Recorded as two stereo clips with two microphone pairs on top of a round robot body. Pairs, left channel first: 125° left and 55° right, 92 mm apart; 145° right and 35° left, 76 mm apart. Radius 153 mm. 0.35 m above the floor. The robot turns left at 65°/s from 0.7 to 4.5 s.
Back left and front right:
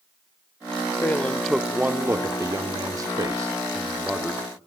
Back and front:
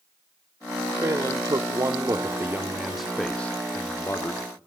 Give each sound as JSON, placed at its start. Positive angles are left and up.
{"t": 1.0, "sound": "a man speaking", "azimuth_deg": 65, "distance_m": 1.1}